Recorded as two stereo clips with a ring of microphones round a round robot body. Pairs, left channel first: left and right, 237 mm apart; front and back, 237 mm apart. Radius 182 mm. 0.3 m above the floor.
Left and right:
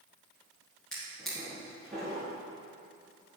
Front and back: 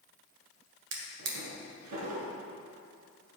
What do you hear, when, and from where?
0.9 s a drawer: straight behind, 1.7 m